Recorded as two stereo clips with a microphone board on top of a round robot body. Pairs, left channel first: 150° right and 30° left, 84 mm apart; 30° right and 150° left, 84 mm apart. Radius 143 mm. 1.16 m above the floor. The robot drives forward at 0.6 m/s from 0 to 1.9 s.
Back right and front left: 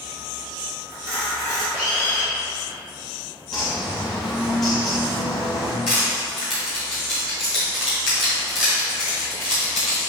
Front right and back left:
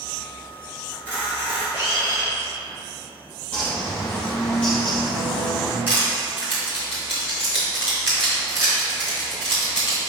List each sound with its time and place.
0.9 s a camera shutter: 80° left, 1.9 m; by 2.3 s 95° left, 1.9 m
3.5 s a bird: 105° right, 0.7 m
5.9 s crushing: 140° right, 1.0 m